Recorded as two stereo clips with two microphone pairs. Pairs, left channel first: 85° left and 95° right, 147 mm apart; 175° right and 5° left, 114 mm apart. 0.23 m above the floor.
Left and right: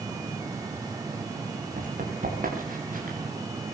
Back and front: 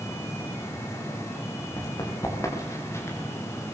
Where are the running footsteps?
115° right, 7 m; by 3.2 s 110° right, 6.5 m.